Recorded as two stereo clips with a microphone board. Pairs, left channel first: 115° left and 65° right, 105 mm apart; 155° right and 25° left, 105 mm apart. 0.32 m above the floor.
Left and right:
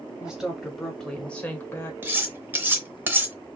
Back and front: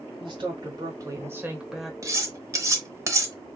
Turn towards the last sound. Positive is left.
turn(degrees=-15)